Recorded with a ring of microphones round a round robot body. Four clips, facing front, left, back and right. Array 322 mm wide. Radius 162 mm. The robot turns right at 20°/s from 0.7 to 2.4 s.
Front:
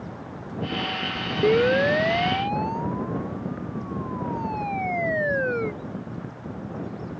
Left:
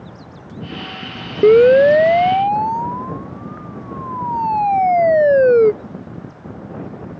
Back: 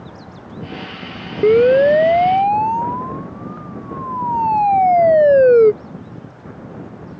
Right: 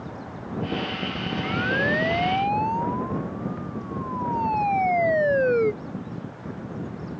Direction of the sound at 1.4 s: 115° left.